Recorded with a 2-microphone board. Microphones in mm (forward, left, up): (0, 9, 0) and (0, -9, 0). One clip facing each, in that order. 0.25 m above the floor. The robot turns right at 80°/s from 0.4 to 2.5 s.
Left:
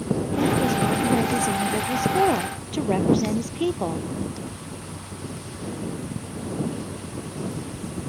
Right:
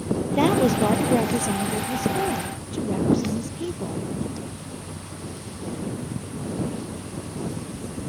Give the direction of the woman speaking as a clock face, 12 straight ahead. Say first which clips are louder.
Right 3 dB; 3 o'clock.